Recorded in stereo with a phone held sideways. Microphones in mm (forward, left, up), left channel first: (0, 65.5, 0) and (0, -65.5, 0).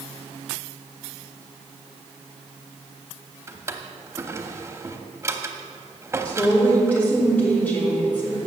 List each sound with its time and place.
3.5 s a drawer: 20° right (ahead or behind), 0.8 m
6.2 s a woman speaking: 15° left (ahead or behind), 3 m